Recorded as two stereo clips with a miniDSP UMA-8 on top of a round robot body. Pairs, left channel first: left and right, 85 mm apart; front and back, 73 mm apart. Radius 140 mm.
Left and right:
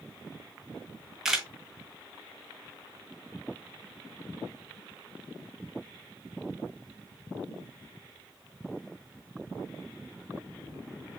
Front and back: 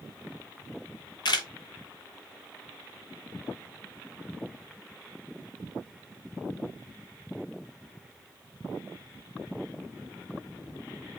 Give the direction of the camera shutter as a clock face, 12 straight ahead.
12 o'clock.